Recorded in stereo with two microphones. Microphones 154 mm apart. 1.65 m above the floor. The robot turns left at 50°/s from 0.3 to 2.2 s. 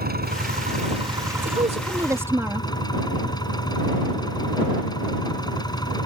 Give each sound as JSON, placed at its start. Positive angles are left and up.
{"t": 0.0, "sound": "an engine running", "azimuth_deg": -110}
{"t": 1.4, "sound": "a woman speaking", "azimuth_deg": -125}